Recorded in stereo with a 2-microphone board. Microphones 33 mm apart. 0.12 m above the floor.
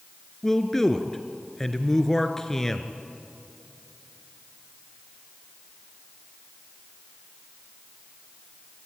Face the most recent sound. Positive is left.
turn(degrees=15)  # may be behind; listen again after turning